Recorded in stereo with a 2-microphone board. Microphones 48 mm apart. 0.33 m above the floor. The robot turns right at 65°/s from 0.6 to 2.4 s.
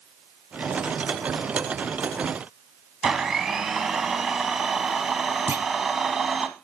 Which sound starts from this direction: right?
A clunk, at 5.5 s.